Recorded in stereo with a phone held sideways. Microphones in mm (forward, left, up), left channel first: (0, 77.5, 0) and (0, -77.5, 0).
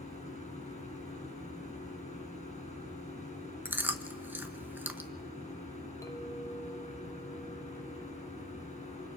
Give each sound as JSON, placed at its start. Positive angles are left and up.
{"t": 0.0, "sound": "a machine running", "side_deg": 45, "distance_m": 5.5}
{"t": 3.6, "sound": "chewing", "side_deg": -15, "distance_m": 1.1}
{"t": 6.0, "sound": "a clink", "side_deg": 20, "distance_m": 1.2}